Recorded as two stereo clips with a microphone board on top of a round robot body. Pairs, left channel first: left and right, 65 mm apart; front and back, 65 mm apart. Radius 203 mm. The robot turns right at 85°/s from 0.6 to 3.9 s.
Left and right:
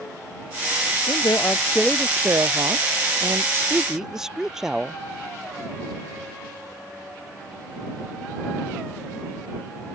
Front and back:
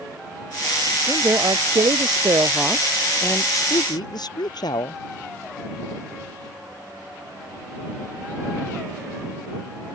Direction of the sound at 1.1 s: 110° left.